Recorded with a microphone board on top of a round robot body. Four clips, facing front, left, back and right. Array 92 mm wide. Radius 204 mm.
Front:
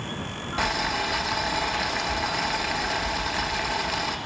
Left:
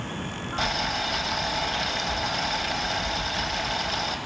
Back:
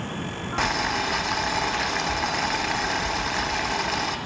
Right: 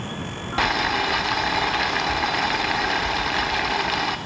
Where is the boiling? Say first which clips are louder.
Right 7 dB, back 1 dB; 105° right, 1.6 m.